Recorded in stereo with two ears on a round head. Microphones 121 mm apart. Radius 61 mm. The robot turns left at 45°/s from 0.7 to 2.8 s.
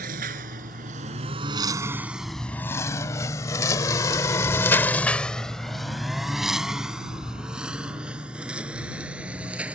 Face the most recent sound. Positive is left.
turn(degrees=-10)  # may be behind; listen again after turning